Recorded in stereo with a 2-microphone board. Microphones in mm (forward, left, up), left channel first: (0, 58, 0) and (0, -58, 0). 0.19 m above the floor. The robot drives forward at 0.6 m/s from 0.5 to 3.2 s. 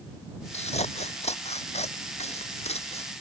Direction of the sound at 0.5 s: 80° left.